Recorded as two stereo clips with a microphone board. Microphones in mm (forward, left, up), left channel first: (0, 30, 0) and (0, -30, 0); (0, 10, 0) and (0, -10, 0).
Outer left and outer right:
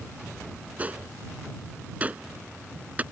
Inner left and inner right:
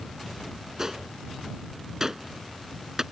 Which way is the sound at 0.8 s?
25° right (ahead or behind).